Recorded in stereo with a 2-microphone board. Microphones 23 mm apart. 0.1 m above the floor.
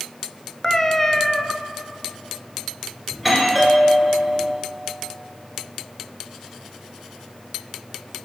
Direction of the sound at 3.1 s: 5° left (ahead or behind).